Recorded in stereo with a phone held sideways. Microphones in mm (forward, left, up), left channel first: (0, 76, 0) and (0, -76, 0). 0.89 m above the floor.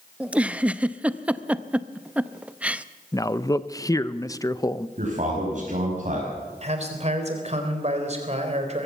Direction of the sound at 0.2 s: 10° right (ahead or behind).